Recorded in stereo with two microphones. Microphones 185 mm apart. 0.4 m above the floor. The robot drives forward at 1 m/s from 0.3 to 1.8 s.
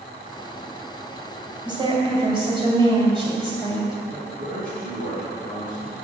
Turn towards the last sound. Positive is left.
turn(degrees=-70)  # may be behind; listen again after turning